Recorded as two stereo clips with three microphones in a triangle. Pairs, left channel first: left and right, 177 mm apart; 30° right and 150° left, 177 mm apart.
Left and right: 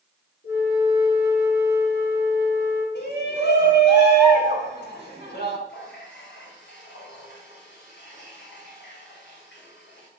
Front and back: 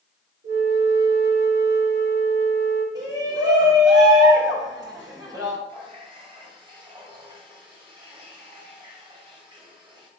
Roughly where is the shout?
Left.